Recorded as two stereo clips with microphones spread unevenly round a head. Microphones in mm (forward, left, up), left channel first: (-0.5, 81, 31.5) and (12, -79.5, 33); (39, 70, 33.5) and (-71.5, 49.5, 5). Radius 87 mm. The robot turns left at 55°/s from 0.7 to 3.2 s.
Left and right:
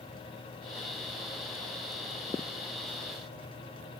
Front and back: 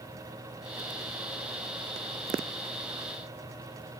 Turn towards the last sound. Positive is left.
No sound to turn to.